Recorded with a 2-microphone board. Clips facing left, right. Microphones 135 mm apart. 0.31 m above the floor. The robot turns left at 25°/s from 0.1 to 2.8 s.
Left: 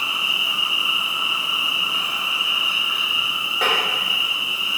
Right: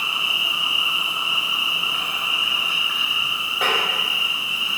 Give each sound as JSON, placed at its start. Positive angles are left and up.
{"t": 0.0, "sound": "an insect", "azimuth_deg": 85, "distance_m": 1.3}
{"t": 3.6, "sound": "tapping", "side_deg": 0, "distance_m": 1.3}